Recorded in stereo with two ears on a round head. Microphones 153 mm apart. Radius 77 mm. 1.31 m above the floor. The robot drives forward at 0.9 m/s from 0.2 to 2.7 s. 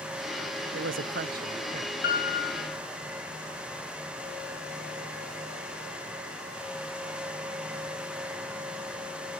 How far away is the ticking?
I don't hear ticking.